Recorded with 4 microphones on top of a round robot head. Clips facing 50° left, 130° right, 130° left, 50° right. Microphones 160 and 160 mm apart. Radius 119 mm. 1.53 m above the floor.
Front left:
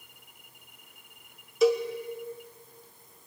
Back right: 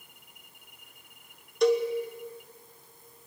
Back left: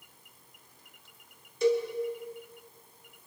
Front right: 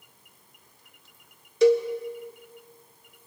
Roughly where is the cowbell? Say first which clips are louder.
Even, front right 7 dB; ahead right.